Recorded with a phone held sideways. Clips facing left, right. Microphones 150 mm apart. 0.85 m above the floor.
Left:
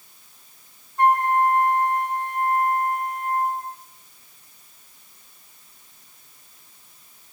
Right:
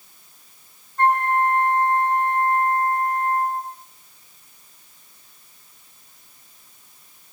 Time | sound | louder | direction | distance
1.0 | a flute | left 1 dB | 15° left (ahead or behind) | 4.5 m